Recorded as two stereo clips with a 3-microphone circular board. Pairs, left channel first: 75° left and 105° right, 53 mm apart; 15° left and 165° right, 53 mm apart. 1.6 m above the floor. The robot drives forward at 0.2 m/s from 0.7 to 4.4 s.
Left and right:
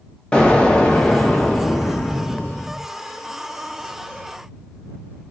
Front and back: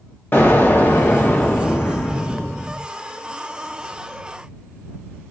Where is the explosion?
15° left, 1.0 m; by 2.8 s 40° left, 0.8 m.